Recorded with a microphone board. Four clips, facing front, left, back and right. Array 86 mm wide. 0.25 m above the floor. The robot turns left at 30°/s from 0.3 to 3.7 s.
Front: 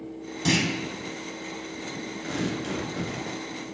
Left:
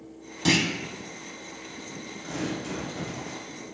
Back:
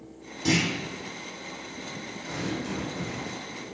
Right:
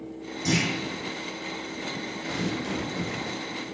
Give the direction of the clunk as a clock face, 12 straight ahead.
10 o'clock.